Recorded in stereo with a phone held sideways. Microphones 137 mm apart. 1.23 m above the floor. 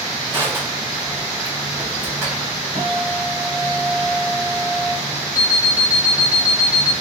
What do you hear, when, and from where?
0.3 s crushing: 20° right (ahead or behind), 1.7 m
2.8 s a guitar: 45° right (ahead or behind), 1.3 m
5.3 s an alarm clock: 25° left (ahead or behind), 1.4 m